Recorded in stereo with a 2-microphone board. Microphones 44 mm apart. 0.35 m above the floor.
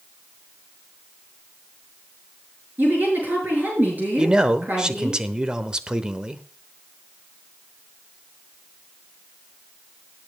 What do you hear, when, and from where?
2.8 s a woman speaking: 40° right (ahead or behind), 6 m
4.2 s a man speaking: 20° right (ahead or behind), 0.9 m